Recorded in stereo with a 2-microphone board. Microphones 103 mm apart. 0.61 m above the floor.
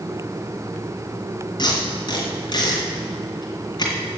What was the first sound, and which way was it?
Tape being pulled, 45° left (ahead or behind).